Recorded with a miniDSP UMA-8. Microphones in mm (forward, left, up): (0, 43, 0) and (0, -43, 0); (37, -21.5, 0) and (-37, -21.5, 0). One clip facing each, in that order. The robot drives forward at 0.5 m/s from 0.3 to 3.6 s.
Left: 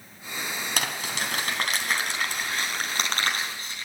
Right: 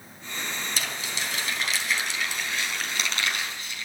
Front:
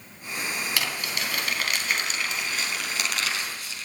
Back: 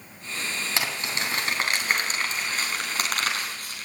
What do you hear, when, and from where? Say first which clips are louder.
0.8 s crumpling: left 3 dB, back 1 dB; 115° left, 3 m; by 3.9 s 140° left, 4 m